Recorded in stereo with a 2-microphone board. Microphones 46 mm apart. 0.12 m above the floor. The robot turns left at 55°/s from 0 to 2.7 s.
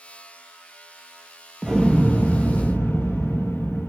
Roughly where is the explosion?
Behind.